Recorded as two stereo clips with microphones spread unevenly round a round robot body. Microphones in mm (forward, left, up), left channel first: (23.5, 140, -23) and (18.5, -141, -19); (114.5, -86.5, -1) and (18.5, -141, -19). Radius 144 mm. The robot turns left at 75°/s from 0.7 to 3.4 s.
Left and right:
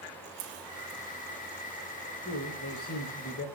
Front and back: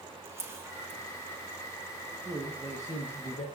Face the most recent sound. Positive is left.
turn(degrees=55)